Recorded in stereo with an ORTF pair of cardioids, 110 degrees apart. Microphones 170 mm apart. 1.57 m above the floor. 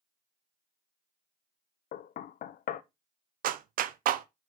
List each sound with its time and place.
1.9 s knocking: 60° left, 0.7 m
3.4 s a clap: 60° right, 0.6 m